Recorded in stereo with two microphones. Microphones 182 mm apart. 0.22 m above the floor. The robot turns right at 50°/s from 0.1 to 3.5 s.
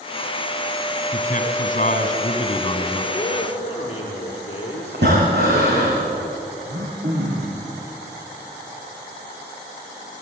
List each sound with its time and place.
1.1 s a man speaking: 60° left, 2.5 m; by 3.0 s 160° left, 2.5 m
3.1 s a man speaking: 15° left (ahead or behind), 4.5 m; by 5.9 s 30° left (ahead or behind), 4.5 m
4.9 s breathing: 70° right (ahead or behind), 6.5 m
6.7 s throat clearing: 80° right, 5 m